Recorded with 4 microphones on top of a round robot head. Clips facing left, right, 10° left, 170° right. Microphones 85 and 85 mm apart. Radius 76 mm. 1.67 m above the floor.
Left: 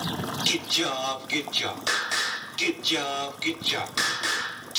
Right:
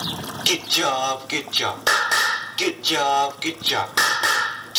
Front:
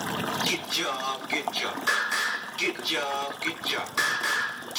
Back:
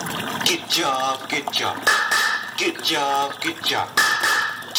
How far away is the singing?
About 0.7 m.